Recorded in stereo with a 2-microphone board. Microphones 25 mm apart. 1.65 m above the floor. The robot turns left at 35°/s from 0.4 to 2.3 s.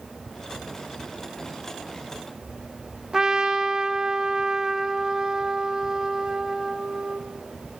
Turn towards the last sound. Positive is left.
turn(degrees=-20)  # may be behind; listen again after turning